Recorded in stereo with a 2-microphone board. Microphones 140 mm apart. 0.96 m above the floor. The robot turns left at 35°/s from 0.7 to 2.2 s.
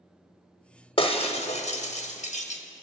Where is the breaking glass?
40° left (ahead or behind), 0.8 m; by 2.6 s 55° left (ahead or behind), 0.8 m.